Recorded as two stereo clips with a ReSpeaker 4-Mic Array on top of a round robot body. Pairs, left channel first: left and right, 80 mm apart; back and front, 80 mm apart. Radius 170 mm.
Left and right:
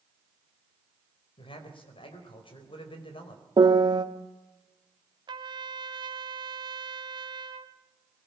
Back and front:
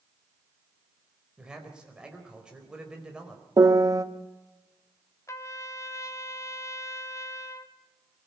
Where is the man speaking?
80° left, 4.5 m.